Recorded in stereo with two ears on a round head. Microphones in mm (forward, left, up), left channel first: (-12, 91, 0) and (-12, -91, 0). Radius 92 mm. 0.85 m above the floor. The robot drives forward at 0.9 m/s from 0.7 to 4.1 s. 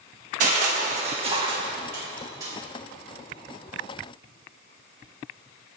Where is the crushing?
40° right (ahead or behind), 1.0 m; by 2.5 s 20° right (ahead or behind), 2 m.